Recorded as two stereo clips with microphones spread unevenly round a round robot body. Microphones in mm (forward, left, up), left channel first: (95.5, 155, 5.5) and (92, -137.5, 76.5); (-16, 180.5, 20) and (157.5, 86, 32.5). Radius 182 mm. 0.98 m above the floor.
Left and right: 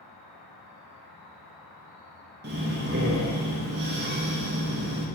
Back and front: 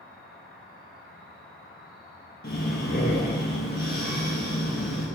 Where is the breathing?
155° right, 0.6 m.